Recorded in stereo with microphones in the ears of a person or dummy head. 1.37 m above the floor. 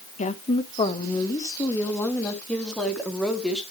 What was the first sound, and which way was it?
A woman speaking, 40° left (ahead or behind).